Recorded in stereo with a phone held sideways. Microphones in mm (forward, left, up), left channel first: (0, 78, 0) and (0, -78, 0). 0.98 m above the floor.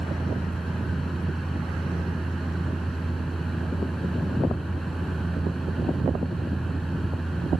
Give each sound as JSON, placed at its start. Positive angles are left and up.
{"t": 0.0, "sound": "a fan", "side_deg": 0}